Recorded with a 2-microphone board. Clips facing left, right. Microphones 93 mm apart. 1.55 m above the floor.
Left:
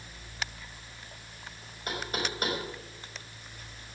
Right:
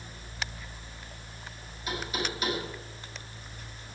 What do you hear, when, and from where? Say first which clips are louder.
1.9 s knocking: right 1 dB; 50° left (ahead or behind), 5 m